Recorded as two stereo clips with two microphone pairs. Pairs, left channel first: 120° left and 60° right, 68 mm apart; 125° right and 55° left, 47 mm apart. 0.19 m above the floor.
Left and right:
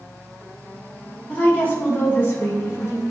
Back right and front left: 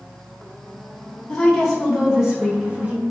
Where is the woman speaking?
170° left, 1.8 m; by 3.0 s 95° left, 2.5 m.